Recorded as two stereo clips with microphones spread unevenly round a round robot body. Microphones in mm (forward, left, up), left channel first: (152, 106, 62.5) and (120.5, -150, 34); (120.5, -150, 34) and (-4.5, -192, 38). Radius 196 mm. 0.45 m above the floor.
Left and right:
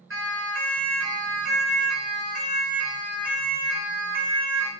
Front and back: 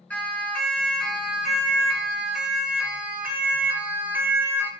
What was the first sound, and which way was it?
A siren, 60° right.